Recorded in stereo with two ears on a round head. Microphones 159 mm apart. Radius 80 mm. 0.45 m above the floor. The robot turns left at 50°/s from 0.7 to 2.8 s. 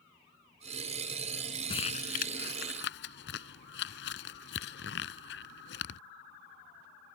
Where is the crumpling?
30° left (ahead or behind); by 6.0 s 80° left.